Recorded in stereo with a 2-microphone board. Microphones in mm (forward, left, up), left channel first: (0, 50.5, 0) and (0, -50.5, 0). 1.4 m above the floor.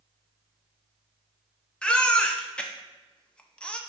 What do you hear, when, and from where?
1.8 s a baby crying: 10° left (ahead or behind), 0.6 m